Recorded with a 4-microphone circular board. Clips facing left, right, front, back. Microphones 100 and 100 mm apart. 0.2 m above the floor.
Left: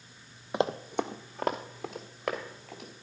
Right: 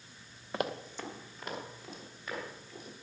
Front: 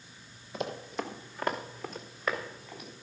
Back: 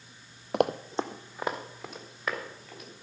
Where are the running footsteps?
165° left, 0.5 m; by 2.9 s 85° left, 3 m.